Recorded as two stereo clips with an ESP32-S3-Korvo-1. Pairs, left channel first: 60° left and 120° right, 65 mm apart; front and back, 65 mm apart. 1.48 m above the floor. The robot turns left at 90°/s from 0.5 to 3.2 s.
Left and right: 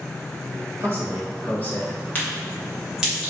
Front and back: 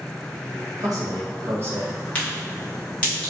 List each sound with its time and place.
0.8 s a man speaking: 160° right, 1.0 m; by 2.0 s 90° left, 1.0 m
2.1 s a crack: 35° left, 1.0 m; by 3.3 s 60° right, 1.0 m